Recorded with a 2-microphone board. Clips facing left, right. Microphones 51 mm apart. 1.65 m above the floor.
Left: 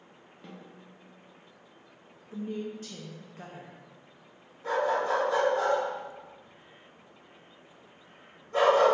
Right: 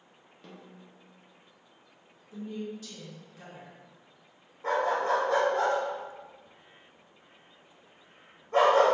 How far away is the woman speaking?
About 0.6 m.